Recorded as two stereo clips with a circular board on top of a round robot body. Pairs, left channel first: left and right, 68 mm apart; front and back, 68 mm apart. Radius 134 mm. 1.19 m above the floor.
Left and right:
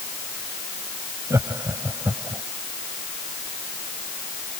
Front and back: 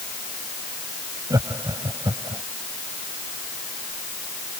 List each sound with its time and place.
1.3 s laughter: 140° right